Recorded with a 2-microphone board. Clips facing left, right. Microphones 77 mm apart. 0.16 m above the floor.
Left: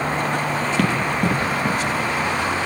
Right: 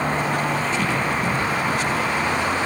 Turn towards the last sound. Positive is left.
turn(degrees=90)